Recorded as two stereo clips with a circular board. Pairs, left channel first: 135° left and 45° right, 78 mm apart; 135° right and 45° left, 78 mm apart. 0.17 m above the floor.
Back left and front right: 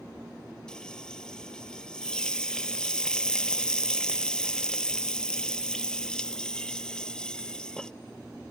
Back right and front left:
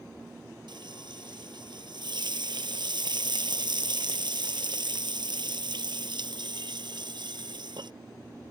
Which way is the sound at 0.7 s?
55° left.